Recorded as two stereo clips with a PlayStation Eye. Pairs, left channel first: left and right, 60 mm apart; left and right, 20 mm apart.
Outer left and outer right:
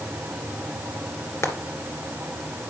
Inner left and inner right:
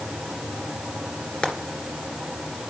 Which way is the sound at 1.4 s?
50° left (ahead or behind).